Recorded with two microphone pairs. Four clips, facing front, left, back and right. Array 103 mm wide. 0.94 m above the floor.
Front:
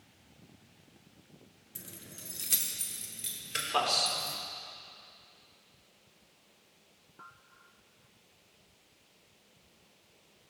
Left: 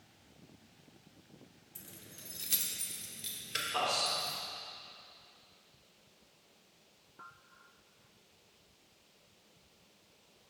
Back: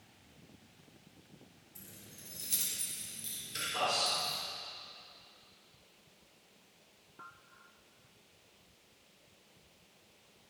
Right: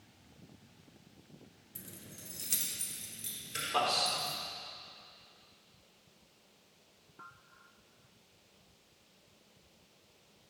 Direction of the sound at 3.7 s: 20° right.